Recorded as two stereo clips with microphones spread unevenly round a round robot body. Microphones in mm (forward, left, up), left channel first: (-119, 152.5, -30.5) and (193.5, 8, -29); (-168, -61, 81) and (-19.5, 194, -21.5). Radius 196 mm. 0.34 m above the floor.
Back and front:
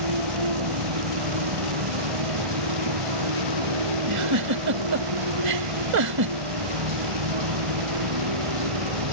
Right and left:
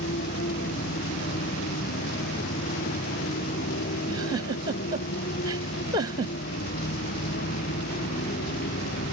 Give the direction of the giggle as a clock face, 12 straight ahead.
12 o'clock.